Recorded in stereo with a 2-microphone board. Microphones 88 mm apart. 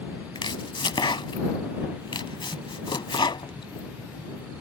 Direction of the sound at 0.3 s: 65° left (ahead or behind).